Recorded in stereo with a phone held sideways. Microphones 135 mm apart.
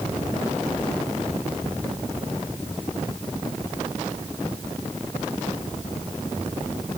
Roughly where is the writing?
I don't hear writing.